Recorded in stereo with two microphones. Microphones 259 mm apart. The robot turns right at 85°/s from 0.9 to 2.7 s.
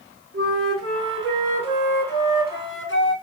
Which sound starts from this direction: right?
A flute, at 0.3 s.